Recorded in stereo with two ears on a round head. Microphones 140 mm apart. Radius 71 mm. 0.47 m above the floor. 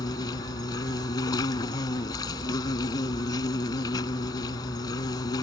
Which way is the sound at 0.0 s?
25° left (ahead or behind).